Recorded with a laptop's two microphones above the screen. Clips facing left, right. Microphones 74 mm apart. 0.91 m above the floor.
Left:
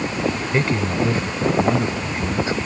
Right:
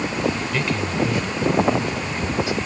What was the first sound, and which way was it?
A man speaking, 30° left (ahead or behind).